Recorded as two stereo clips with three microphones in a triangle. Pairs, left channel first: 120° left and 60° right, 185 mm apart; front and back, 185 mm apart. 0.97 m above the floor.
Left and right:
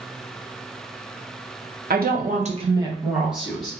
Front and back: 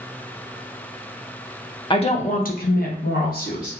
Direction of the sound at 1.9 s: 60° right.